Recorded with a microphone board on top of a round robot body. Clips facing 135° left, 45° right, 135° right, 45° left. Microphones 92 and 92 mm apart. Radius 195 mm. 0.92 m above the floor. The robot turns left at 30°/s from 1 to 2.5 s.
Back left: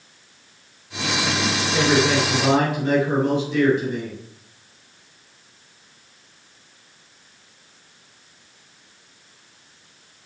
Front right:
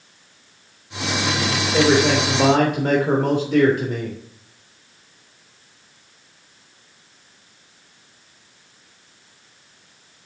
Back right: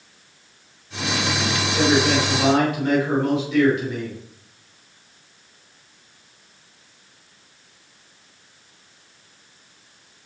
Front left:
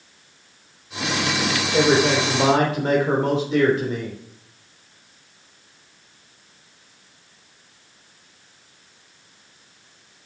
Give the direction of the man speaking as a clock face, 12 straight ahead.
12 o'clock.